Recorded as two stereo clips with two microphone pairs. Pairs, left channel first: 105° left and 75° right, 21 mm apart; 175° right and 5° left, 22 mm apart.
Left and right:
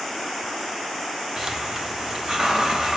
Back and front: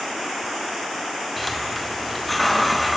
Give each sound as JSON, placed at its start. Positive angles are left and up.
{"t": 1.4, "sound": "a hiss", "azimuth_deg": -75, "distance_m": 1.3}